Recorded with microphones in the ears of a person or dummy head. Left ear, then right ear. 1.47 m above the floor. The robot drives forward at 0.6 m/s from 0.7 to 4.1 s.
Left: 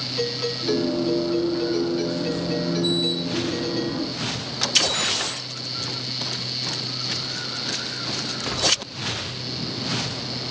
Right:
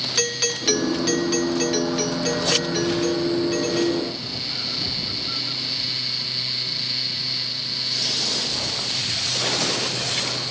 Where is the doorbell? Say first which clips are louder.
Right 2 dB; 75° right (ahead or behind); by 4.1 s 40° right (ahead or behind).